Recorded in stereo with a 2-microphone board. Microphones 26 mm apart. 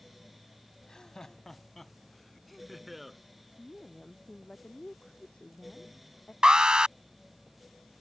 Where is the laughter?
25° left (ahead or behind); by 3.2 s 5° right (ahead or behind).